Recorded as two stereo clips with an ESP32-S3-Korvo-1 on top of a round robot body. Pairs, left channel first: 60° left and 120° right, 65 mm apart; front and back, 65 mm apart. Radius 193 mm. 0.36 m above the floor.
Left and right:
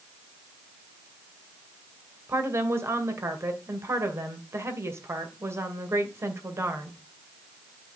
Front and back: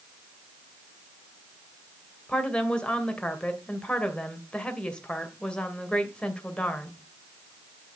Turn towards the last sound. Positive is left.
turn(degrees=-75)